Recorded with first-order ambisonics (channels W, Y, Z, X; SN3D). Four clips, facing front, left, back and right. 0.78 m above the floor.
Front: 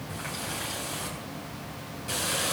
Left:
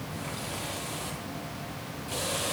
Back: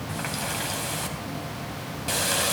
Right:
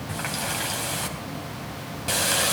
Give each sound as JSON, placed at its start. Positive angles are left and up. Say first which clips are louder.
{"t": 0.1, "sound": "a running tap", "louder": "right 9 dB, back 5 dB", "azimuth_deg": -125, "distance_m": 3.0}